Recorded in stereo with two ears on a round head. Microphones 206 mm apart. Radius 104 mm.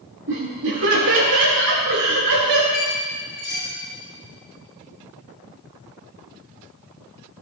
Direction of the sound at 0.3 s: 60° right (ahead or behind).